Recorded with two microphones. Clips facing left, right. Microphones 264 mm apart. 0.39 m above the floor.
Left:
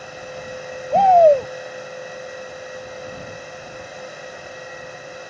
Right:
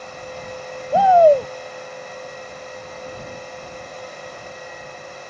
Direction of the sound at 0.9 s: 5° right (ahead or behind).